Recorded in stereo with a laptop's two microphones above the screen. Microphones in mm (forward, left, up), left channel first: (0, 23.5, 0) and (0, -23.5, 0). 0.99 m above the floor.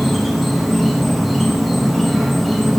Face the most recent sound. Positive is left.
turn(degrees=0)  # may be behind; listen again after turning